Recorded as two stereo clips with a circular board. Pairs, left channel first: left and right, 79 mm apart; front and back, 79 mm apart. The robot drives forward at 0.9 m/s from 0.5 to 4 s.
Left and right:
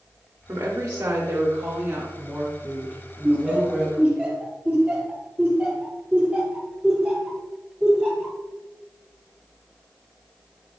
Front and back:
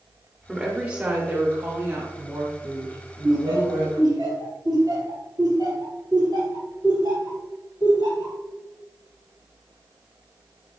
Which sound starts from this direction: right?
A woman speaking, at 0.5 s.